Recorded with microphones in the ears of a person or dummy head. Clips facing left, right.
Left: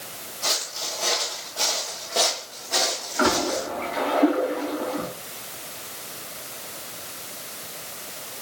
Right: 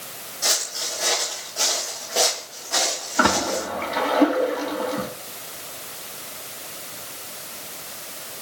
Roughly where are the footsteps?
Right.